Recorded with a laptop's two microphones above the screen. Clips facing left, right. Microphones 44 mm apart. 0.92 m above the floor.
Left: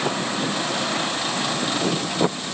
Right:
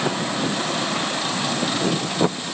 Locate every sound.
Only background noise.